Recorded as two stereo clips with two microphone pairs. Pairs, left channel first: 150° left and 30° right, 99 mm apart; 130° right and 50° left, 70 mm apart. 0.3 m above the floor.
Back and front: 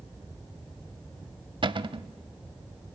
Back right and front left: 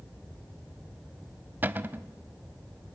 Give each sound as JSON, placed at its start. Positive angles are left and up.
{"t": 1.6, "sound": "a cupboard door", "azimuth_deg": -5, "distance_m": 0.6}